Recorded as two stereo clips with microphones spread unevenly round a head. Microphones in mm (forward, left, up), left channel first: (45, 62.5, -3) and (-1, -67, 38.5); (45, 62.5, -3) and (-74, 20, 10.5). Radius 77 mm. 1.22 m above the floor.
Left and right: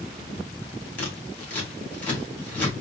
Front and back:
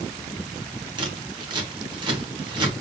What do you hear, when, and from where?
1.0 s scissors: 145° left, 1.9 m